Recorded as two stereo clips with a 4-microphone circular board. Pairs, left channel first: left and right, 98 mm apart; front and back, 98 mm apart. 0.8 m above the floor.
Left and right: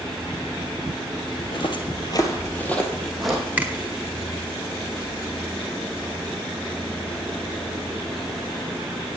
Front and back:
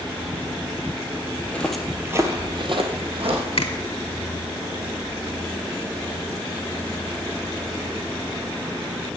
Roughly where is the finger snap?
Ahead.